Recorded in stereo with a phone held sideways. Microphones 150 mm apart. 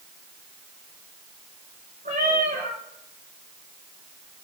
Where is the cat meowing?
75° right (ahead or behind), 5.5 m.